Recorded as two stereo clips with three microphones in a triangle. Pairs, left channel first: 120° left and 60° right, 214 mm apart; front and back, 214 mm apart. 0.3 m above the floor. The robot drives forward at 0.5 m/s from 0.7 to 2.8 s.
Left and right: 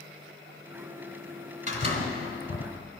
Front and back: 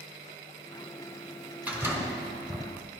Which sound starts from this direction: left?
A door slam, at 1.7 s.